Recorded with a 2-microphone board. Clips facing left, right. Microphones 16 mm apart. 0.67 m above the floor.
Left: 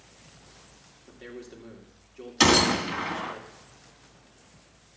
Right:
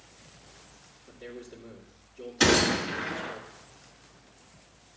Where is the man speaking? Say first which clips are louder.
Left 1 dB; 55° left (ahead or behind), 2 m.